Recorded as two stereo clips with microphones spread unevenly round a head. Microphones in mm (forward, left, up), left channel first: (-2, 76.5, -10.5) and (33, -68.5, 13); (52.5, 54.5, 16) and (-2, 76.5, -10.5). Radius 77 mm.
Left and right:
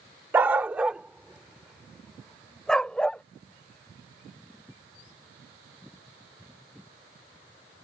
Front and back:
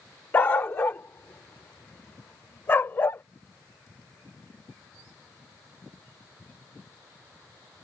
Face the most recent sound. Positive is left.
turn(degrees=15)